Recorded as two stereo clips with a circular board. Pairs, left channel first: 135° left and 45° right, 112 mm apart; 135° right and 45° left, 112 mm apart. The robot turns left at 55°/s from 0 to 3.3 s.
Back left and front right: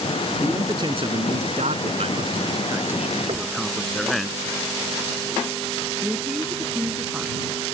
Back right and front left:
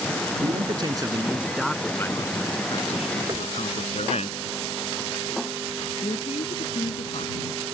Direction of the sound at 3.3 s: 5° right.